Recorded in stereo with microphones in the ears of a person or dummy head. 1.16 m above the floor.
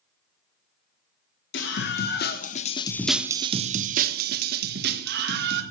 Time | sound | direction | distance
1.5 | a scream | 55° left (ahead or behind) | 1.4 m